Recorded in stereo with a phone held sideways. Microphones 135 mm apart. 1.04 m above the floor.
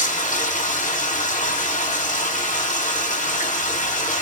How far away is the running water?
About 5 m.